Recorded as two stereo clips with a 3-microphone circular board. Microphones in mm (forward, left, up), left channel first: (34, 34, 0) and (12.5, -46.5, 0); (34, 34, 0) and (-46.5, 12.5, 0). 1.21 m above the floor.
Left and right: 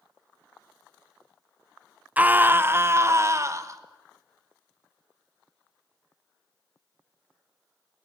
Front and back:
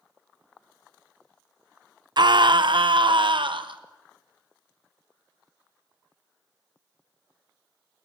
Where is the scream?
175° right, 0.7 m; by 3.8 s 155° right, 1.5 m.